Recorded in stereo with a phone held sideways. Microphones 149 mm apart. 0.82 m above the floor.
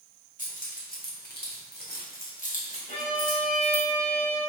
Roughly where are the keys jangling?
Left.